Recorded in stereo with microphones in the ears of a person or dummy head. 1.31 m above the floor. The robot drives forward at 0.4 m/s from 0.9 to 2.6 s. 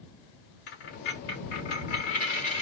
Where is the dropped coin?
60° left (ahead or behind), 1.2 m; by 2.6 s 45° left (ahead or behind), 1.5 m.